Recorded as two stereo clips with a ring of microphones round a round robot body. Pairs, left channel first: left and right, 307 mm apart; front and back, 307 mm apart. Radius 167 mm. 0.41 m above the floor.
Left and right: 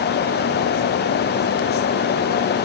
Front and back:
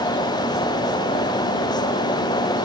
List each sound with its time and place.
Only background noise.